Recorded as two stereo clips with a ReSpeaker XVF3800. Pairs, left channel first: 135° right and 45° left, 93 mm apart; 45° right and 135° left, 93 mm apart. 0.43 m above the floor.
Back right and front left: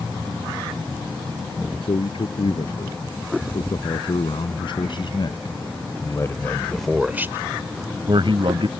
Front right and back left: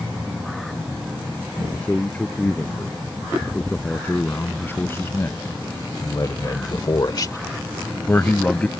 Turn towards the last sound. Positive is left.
turn(degrees=30)